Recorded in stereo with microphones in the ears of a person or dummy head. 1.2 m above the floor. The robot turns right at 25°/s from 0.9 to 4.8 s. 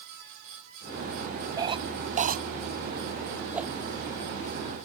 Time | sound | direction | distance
1.6 | a cough | 15° right (ahead or behind) | ?
3.5 | a whoosh | 15° right (ahead or behind) | ?